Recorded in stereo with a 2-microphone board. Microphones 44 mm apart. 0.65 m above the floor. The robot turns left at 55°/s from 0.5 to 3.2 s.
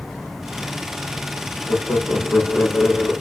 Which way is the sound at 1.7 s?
95° left.